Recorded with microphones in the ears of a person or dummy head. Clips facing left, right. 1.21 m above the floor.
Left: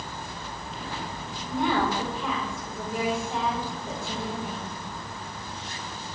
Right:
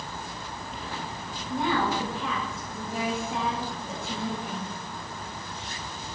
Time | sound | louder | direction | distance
1.5 | a woman speaking | left 1 dB | 70° left (ahead or behind) | 6 m